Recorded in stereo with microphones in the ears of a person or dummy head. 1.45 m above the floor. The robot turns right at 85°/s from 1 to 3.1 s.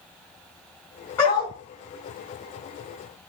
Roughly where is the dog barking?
Ahead.